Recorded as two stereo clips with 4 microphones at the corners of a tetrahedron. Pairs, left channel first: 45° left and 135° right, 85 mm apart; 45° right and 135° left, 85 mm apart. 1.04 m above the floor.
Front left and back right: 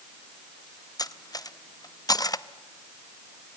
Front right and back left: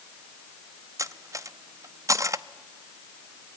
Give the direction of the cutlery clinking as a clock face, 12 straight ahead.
9 o'clock.